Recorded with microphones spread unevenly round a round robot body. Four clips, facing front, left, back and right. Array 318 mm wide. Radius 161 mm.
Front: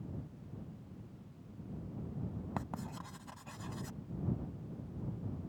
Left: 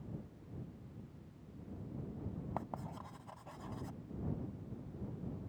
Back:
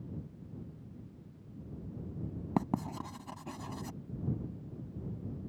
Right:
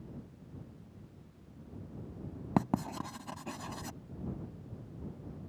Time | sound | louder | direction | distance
2.6 | writing | right 15 dB, back 12 dB | 115° right | ?